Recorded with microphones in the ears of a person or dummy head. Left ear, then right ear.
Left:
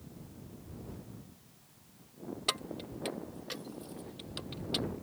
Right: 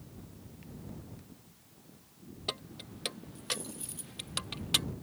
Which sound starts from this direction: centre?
Keys jangling, at 2.5 s.